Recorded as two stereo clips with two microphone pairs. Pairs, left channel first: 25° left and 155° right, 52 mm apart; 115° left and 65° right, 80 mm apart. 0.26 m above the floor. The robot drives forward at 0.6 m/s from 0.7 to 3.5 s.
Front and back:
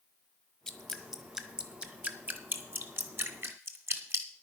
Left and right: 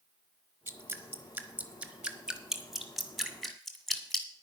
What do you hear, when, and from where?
0.7 s dripping: 55° right, 1.2 m; by 4.3 s 155° right, 1.7 m